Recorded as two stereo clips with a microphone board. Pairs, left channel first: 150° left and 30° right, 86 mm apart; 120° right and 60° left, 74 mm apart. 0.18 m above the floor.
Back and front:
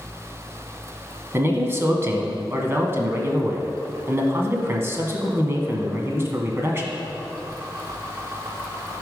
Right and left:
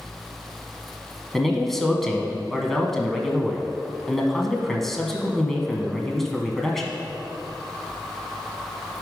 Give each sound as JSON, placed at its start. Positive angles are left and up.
{"t": 1.3, "sound": "a man speaking", "azimuth_deg": -35, "distance_m": 1.2}